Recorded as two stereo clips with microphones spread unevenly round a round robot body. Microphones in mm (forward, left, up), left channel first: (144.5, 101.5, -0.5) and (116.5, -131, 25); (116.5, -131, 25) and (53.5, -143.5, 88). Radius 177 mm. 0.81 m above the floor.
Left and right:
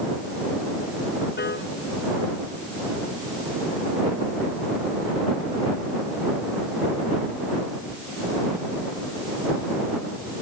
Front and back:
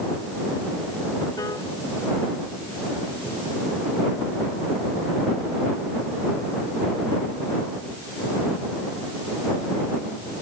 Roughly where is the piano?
Ahead left.